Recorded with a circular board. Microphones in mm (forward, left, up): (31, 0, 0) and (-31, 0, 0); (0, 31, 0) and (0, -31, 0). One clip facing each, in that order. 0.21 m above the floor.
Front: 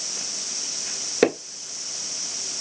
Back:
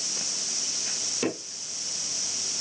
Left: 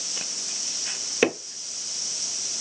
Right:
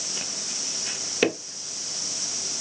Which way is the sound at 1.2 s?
15° left.